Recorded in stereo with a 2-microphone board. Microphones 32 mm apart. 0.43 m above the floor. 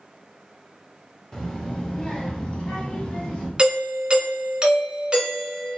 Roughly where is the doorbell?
Right.